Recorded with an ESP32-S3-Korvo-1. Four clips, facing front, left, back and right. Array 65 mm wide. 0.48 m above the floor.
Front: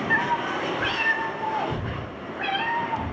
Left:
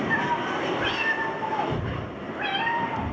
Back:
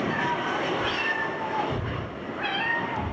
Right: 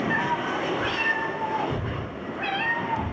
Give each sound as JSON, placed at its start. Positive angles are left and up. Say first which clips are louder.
{"t": 0.1, "sound": "a cat meowing", "louder": "even, front 3 dB", "azimuth_deg": 5, "distance_m": 0.6}